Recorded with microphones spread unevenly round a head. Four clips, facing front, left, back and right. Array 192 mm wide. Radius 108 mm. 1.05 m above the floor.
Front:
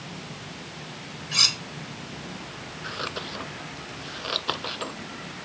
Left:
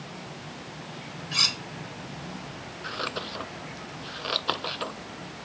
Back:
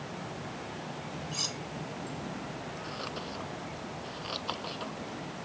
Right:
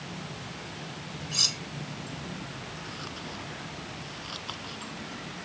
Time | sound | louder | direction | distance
1.3 | cutlery clinking | left 5 dB, front 5 dB | 30° left | ?
2.8 | scissors | left 6 dB, front 4 dB | 50° left | ?